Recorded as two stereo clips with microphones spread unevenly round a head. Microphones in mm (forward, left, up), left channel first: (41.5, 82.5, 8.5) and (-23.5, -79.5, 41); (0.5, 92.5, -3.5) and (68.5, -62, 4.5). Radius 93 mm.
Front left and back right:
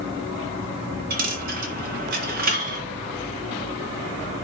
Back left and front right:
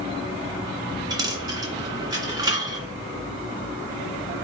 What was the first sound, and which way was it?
A dropped coin, 130° right.